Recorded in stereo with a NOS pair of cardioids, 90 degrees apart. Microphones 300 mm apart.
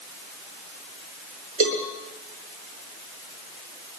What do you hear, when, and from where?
1.6 s a cowbell: 45° right, 7.5 m